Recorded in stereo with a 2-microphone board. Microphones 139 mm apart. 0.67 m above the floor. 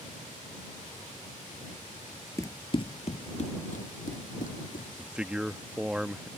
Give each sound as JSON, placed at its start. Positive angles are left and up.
{"t": 2.4, "sound": "running footsteps", "side_deg": 20}
{"t": 5.0, "sound": "a man speaking", "side_deg": -5}